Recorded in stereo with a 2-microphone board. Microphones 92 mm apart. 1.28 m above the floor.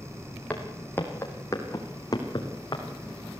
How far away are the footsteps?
About 4 m.